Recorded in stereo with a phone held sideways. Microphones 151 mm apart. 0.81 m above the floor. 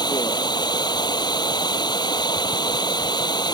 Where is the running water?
30° left (ahead or behind).